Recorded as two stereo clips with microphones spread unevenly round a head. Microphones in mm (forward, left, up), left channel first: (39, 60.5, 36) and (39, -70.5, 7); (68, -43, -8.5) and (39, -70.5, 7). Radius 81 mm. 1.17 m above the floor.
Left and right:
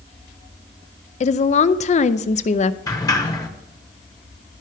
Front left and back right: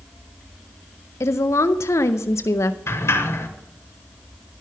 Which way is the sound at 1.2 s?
55° left.